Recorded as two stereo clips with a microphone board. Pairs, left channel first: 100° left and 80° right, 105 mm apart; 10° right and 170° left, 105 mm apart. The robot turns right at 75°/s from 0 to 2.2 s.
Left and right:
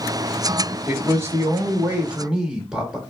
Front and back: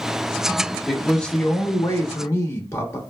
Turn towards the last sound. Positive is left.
turn(degrees=-10)